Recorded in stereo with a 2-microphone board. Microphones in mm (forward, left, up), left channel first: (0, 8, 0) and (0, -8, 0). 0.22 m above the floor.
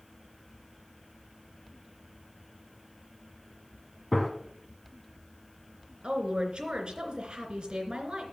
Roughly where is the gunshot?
Centre.